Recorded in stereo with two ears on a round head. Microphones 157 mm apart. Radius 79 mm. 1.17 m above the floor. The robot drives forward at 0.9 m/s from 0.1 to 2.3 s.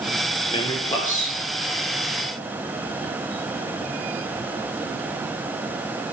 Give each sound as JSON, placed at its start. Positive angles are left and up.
{"t": 0.5, "sound": "a man speaking", "side_deg": 30, "distance_m": 0.6}